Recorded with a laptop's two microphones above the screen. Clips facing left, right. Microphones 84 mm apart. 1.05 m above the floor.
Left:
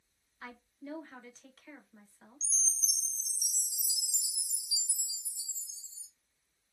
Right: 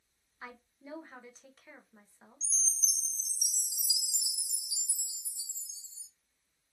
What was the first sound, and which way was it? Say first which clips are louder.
A woman speaking: left 2 dB; 10° right (ahead or behind).